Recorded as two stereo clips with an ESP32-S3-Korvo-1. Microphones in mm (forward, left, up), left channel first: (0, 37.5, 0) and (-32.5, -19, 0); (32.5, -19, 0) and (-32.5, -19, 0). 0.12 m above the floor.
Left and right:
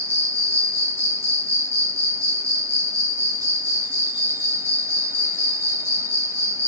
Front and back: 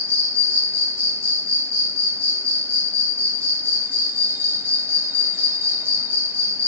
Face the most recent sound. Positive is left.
turn(degrees=-145)